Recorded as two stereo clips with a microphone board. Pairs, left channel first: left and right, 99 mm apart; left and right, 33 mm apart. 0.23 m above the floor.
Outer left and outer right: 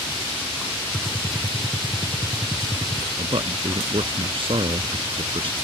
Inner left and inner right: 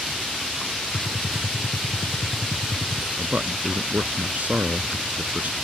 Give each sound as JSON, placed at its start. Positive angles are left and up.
{"t": 0.9, "sound": "a gunshot", "side_deg": 0}
{"t": 3.2, "sound": "a man speaking", "side_deg": -65}